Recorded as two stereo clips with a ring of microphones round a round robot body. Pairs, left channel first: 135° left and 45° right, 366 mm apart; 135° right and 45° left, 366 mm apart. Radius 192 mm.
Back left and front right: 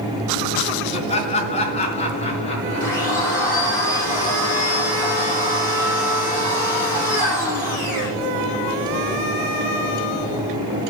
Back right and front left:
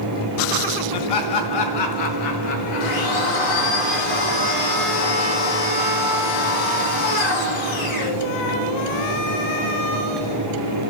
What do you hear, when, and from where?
0.9 s laughter: 150° right, 3.5 m
2.8 s a blender: 140° right, 8.5 m